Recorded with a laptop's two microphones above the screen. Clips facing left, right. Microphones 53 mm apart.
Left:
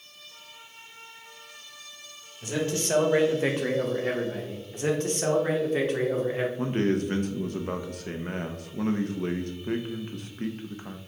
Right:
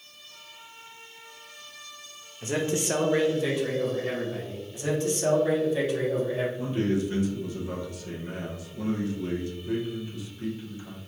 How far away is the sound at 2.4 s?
About 0.8 m.